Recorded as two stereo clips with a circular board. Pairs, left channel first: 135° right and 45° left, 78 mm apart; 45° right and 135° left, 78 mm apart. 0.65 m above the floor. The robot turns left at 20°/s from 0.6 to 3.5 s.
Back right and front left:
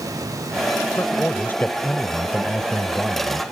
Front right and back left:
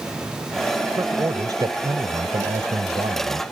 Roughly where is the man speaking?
Behind.